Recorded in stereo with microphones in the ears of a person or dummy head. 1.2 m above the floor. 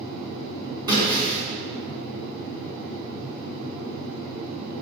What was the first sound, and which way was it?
Breaking glass, 20° right (ahead or behind).